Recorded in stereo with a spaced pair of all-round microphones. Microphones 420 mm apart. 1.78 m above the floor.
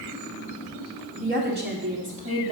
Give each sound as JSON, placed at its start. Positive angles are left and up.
{"t": 1.2, "sound": "a woman speaking", "side_deg": -30, "distance_m": 2.5}